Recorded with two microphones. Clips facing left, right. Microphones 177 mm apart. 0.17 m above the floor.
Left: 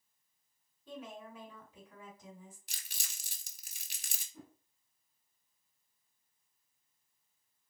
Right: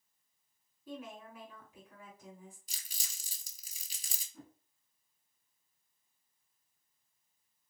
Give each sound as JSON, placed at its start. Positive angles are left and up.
{"t": 0.9, "sound": "a woman speaking", "side_deg": -10, "distance_m": 1.8}
{"t": 2.7, "sound": "crumpling", "side_deg": 70, "distance_m": 0.6}
{"t": 4.3, "sound": "a whoosh", "side_deg": 10, "distance_m": 1.1}